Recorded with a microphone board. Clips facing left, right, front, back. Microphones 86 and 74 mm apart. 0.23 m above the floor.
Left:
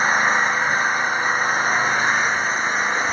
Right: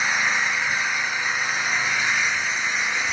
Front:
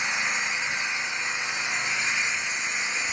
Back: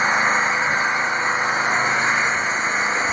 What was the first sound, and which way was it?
An engine running, 140° left.